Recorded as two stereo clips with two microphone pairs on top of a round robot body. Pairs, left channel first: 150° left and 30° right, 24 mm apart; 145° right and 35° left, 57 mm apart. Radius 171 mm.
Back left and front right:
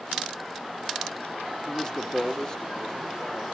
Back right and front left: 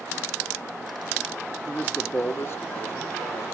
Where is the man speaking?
135° left, 0.9 m; by 3.5 s 130° right, 1.3 m.